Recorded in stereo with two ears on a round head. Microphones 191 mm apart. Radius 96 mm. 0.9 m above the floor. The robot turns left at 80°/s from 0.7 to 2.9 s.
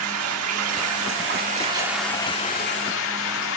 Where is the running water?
75° right, 1.7 m; by 3.6 s 110° left, 1.7 m.